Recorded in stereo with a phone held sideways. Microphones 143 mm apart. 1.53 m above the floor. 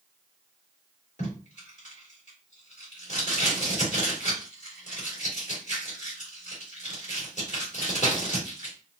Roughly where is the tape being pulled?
Left.